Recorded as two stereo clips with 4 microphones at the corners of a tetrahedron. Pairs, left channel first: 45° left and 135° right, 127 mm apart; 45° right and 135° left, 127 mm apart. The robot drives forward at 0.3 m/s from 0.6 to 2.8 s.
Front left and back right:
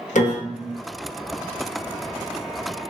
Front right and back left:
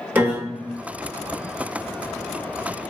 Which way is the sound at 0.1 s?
60° left.